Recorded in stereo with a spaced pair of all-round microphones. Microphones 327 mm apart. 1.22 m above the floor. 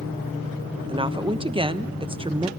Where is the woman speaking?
15° right (ahead or behind), 1.1 m.